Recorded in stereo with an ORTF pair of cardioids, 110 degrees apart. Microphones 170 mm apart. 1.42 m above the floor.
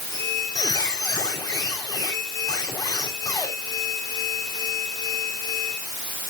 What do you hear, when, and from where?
0.1 s a squeak: 20° left, 3.5 m